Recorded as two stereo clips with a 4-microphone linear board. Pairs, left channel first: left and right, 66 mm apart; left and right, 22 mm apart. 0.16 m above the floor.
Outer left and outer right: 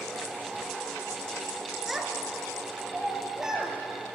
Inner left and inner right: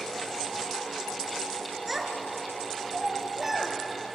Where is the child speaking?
5° right (ahead or behind), 1.5 m; by 3.7 s 10° right (ahead or behind), 2.5 m.